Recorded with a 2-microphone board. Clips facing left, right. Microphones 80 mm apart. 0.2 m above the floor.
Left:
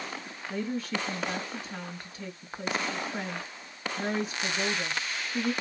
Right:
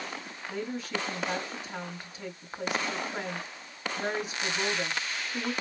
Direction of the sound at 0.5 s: 20° right (ahead or behind).